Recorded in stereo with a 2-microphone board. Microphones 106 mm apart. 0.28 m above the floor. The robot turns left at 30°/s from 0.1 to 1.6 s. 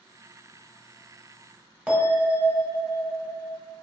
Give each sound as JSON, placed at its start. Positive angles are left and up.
{"t": 1.9, "sound": "a bell", "side_deg": -10, "distance_m": 1.1}